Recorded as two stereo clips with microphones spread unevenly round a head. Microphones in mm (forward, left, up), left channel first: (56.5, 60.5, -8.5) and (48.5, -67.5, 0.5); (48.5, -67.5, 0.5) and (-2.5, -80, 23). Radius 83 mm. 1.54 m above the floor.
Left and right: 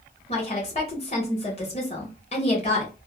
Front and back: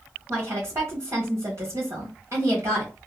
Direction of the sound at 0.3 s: 140° left.